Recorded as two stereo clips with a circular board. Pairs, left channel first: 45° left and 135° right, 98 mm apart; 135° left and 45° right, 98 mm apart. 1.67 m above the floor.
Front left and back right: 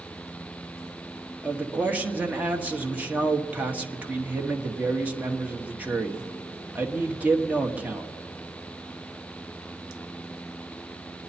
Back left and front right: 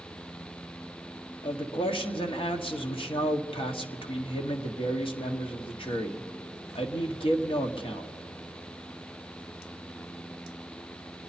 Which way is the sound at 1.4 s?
150° left.